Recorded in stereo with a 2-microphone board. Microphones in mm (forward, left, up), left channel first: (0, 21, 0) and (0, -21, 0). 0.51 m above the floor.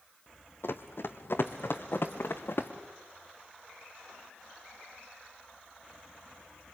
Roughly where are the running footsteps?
Left.